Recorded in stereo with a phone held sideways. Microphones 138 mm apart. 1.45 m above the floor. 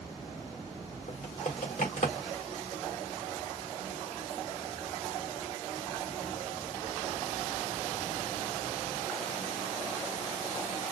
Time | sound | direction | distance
1.1 | typing on a keyboard | 60° left (ahead or behind) | 1.7 m